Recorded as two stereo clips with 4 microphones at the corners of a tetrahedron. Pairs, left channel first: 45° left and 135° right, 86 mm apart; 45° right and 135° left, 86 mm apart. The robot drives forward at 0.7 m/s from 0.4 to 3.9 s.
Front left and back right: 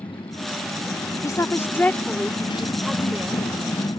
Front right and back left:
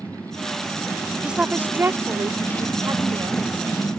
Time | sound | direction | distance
0.0 | a motorcycle | 30° left | ?
1.2 | a woman speaking | 60° left | ?